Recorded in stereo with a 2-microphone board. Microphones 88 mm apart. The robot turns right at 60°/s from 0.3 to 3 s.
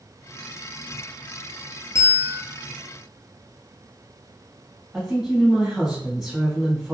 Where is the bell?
30° left (ahead or behind), 0.6 m; by 2.4 s 35° left (ahead or behind), 0.6 m.